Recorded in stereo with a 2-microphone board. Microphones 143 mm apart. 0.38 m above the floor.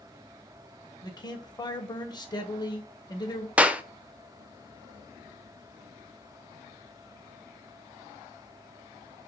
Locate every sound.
1.0 s a man speaking: 30° left (ahead or behind), 1.2 m
3.6 s a clap: 10° right (ahead or behind), 0.6 m